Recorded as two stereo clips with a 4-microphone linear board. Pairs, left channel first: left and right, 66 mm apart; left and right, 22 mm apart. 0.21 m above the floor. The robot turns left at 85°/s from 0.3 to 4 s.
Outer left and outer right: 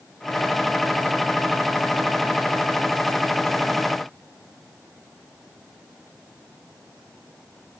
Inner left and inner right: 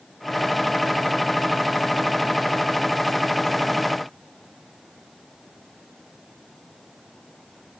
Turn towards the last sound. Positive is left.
No sound to turn to.